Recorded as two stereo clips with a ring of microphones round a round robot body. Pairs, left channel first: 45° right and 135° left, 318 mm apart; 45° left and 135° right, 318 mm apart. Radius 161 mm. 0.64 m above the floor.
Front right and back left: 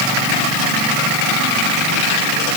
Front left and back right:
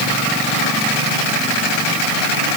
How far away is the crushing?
No crushing in this recording.